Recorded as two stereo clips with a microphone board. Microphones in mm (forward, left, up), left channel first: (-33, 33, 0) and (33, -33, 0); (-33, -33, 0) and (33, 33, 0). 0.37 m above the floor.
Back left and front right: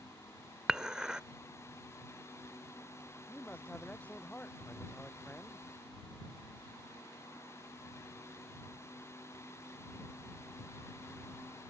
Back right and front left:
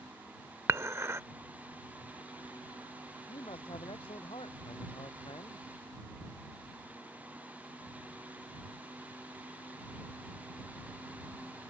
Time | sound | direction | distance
0.7 | dishes clattering | 30° left | ?
3.3 | a man speaking | 150° right | ?